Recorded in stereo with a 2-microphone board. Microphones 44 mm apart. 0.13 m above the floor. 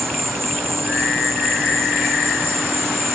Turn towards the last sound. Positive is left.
turn(degrees=-85)